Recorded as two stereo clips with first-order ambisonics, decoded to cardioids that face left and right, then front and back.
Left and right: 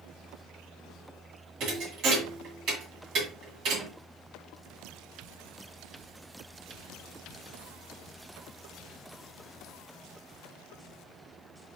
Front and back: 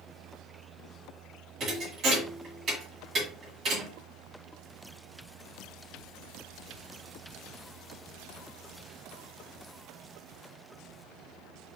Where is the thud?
125° right, 2 m.